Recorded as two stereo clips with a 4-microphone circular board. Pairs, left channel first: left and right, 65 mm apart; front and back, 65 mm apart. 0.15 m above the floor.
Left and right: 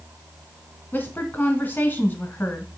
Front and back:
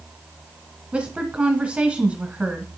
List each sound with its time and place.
0.9 s a woman speaking: 120° left, 1.7 m